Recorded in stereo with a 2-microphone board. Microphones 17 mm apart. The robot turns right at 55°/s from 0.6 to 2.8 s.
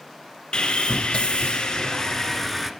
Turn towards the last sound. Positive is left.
turn(degrees=-165)